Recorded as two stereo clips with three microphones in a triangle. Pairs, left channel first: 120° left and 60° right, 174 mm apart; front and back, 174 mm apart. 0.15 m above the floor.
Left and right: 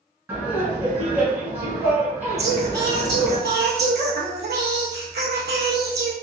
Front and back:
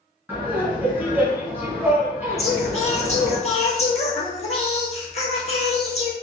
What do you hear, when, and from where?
0.3 s laughter: 120° right, 1.2 m
2.4 s singing: 50° right, 0.9 m